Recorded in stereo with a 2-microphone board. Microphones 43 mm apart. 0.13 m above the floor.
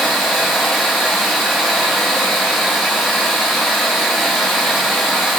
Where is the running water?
5° left (ahead or behind), 0.7 m.